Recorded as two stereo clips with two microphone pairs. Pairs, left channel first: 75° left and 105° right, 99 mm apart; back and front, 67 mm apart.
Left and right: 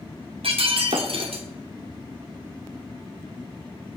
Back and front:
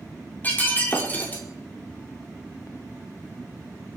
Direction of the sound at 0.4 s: 120° right.